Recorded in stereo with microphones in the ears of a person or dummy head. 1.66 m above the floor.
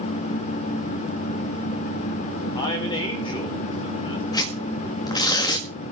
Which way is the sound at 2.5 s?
25° left (ahead or behind).